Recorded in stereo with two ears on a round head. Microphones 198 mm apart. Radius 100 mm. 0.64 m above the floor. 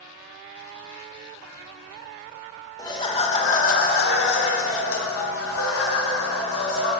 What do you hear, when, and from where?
2.8 s laughter: 20° left (ahead or behind), 1.6 m; by 6.9 s 75° left (ahead or behind), 2.5 m